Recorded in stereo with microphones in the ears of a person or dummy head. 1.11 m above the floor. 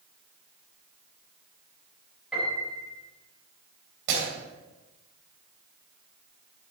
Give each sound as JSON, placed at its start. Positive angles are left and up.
{"t": 2.3, "sound": "a piano", "side_deg": -5, "distance_m": 4.5}
{"t": 4.1, "sound": "breaking glass", "side_deg": -65, "distance_m": 3.5}